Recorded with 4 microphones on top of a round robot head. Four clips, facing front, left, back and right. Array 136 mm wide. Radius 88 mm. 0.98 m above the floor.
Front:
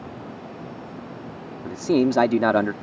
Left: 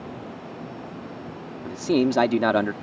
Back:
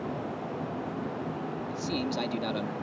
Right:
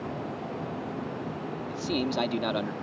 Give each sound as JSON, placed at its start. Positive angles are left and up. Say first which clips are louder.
{"t": 1.6, "sound": "a man speaking", "louder": "left 10 dB, front 15 dB", "azimuth_deg": 30}